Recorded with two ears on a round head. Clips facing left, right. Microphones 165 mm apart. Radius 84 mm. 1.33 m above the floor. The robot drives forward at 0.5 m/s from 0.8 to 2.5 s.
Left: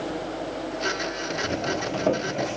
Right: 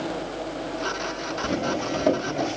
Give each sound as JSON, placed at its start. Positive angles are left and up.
{"t": 1.4, "sound": "footsteps", "side_deg": -10, "distance_m": 1.4}